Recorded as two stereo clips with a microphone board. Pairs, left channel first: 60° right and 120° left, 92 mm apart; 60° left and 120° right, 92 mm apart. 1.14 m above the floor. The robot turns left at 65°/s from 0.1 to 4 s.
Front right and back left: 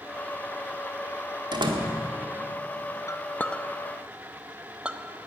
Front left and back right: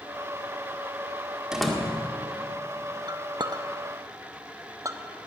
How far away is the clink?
About 0.6 m.